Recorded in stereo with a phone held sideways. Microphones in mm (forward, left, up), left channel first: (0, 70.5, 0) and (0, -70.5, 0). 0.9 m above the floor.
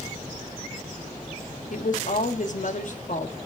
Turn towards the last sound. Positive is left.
turn(degrees=60)  # may be behind; listen again after turning